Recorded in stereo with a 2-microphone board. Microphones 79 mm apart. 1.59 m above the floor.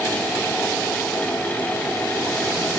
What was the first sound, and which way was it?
Only background noise.